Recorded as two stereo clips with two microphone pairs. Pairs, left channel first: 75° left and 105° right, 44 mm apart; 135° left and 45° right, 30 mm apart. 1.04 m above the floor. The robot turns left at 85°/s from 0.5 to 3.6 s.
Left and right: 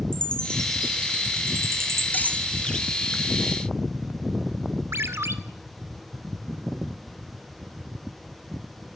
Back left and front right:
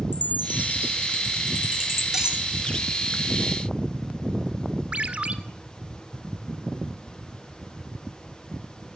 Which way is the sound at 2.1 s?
30° left.